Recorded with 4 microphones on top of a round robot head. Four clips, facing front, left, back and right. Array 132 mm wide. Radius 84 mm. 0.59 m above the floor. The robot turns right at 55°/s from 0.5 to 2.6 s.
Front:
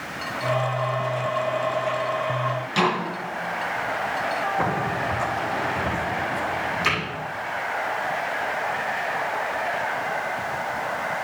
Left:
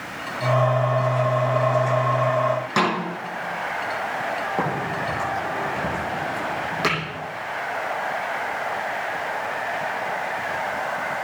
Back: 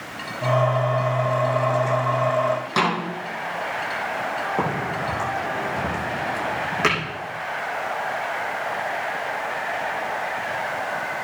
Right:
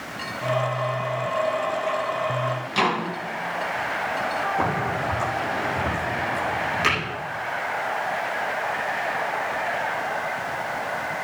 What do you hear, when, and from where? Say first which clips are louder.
2.8 s a snare drum: right 1 dB, front 1 dB; 125° left, 7.5 m
4.6 s a crack: right 1 dB, even; 145° left, 9 m